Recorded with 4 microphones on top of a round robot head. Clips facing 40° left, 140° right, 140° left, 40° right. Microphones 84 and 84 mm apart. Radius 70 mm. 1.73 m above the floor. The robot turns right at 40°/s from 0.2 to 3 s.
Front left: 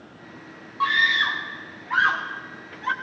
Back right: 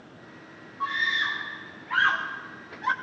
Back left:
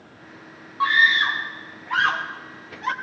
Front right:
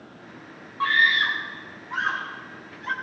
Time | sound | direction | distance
0.8 | a scream | 65° left | 0.6 m